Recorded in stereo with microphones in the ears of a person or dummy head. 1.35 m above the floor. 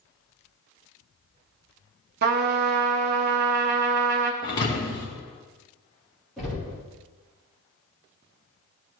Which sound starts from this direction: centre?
Knocking, at 6.4 s.